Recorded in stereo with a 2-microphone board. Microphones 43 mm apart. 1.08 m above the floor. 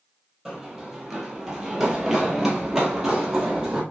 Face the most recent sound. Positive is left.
turn(degrees=-10)  # may be behind; listen again after turning